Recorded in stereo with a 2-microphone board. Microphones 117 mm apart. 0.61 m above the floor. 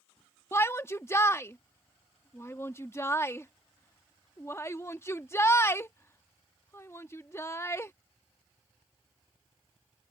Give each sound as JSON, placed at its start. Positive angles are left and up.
{"t": 0.5, "sound": "a shout", "side_deg": 25}